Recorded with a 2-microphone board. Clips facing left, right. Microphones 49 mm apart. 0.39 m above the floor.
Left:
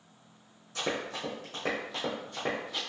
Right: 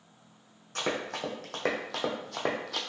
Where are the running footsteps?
55° right (ahead or behind), 1.5 m; by 2.8 s 70° right (ahead or behind), 1.0 m.